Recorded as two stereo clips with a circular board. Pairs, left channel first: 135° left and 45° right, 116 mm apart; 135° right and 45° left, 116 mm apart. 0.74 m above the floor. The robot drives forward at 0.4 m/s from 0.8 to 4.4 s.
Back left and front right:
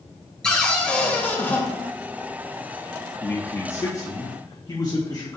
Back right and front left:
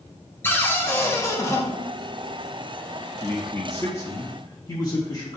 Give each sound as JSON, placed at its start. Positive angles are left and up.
{"t": 0.4, "sound": "a cupboard door", "azimuth_deg": -155, "distance_m": 1.1}
{"t": 3.2, "sound": "a man speaking", "azimuth_deg": 180, "distance_m": 0.7}